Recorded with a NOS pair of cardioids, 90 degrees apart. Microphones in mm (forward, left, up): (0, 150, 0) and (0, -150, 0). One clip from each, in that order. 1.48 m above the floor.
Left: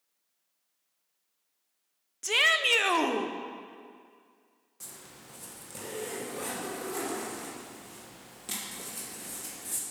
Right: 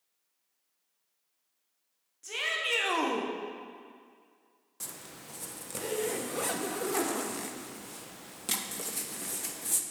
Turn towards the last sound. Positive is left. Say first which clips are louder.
# right 3 dB
turn(degrees=-35)